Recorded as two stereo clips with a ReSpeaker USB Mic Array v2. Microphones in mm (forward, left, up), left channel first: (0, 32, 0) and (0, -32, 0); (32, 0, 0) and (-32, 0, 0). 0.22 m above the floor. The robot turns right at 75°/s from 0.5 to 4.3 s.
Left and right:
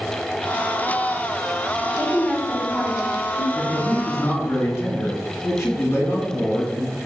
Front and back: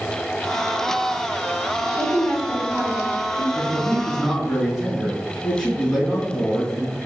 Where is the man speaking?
15° left, 2 m; by 7.0 s 70° left, 2 m.